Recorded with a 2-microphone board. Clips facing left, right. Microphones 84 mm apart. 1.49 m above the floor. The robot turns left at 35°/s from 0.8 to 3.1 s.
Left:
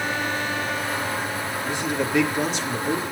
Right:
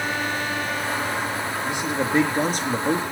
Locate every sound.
1.6 s a man speaking: 15° right, 3.5 m; by 3.0 s 60° right, 3.5 m